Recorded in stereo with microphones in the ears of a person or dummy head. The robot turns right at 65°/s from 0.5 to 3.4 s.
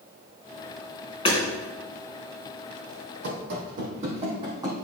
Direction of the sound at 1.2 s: 30° left (ahead or behind).